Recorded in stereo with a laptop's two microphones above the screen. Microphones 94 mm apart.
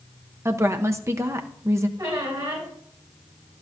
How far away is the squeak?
About 3.5 m.